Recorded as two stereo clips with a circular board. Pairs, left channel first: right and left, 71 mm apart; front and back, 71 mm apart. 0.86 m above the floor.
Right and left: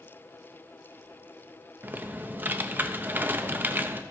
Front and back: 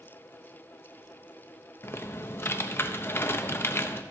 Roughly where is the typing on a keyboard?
Ahead left.